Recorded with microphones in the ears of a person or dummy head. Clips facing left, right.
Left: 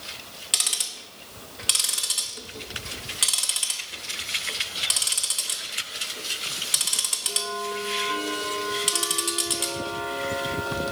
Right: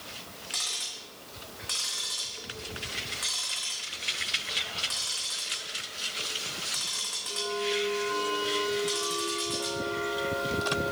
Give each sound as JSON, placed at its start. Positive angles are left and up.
{"t": 0.5, "sound": "ticking", "side_deg": 40, "distance_m": 0.7}